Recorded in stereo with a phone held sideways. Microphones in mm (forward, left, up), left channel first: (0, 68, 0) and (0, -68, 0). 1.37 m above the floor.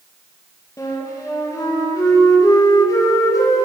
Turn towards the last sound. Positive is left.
turn(degrees=25)  # may be behind; listen again after turning